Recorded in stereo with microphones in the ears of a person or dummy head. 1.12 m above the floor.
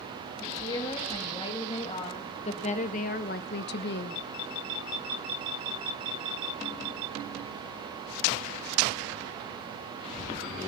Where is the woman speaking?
20° left (ahead or behind), 2.5 m; by 4.2 s 60° left (ahead or behind), 1.0 m.